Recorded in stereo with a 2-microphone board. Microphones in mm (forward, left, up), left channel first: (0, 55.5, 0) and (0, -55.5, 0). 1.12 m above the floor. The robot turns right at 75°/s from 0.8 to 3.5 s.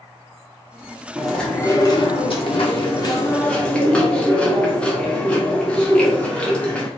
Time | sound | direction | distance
1.1 | chewing | 10° right | 1.0 m